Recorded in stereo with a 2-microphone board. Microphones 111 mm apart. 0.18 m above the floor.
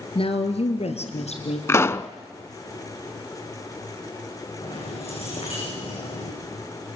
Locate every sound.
0.1 s a woman speaking: 55° left (ahead or behind), 2.5 m; by 1.6 s 75° left (ahead or behind), 4 m
1.7 s a pop: 25° left (ahead or behind), 0.6 m
4.6 s keys jangling: 65° left (ahead or behind), 10 m